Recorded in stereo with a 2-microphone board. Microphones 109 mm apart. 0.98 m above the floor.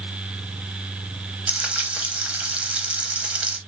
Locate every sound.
1.5 s frying: 15° right (ahead or behind), 0.6 m